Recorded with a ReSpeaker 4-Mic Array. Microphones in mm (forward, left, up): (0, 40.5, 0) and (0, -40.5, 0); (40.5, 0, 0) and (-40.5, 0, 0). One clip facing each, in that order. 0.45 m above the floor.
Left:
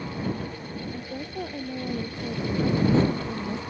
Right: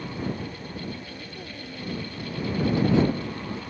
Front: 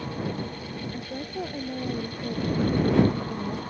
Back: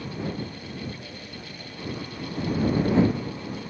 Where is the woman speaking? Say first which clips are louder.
Left 5 dB, front 7 dB; 45° left; by 3.6 s 30° left.